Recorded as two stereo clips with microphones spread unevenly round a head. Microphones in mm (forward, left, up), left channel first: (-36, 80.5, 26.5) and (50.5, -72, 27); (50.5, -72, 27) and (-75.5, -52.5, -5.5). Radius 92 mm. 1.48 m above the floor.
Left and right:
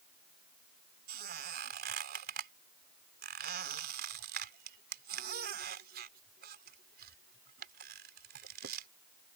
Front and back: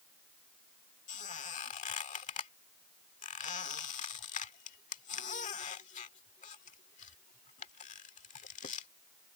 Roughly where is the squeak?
Ahead right.